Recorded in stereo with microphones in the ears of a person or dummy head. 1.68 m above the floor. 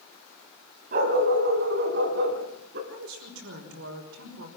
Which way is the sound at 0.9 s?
60° right (ahead or behind).